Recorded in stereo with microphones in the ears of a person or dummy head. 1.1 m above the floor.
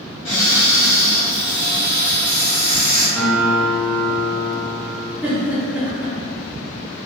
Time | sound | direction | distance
0.2 | a cupboard door | 45° left (ahead or behind) | 1.9 m
3.2 | a guitar | 5° left (ahead or behind) | 0.9 m
5.2 | a giggle | 10° right (ahead or behind) | 0.7 m